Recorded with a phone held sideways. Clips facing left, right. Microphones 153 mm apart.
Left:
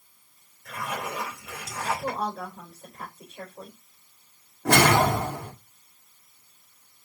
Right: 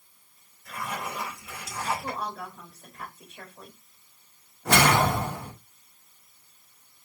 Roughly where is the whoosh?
Left.